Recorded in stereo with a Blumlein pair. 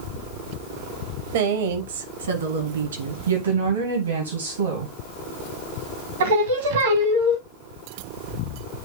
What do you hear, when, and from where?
1.3 s a woman speaking: 60° right, 1.4 m; by 3.2 s 65° right, 2.5 m
3.3 s a woman speaking: 70° right, 2 m
6.2 s singing: 60° right, 1.9 m